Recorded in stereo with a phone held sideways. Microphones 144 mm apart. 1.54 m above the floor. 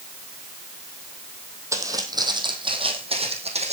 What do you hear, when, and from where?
1.7 s footsteps: 20° right (ahead or behind), 2.5 m; by 3.7 s 45° right (ahead or behind), 3.5 m